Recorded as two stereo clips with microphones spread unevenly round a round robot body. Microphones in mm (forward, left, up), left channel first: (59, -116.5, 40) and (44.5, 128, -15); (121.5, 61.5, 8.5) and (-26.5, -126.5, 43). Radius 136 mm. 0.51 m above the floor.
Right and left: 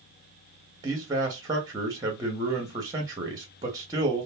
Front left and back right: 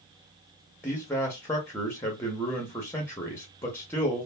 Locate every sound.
0.8 s a man speaking: 100° left, 0.8 m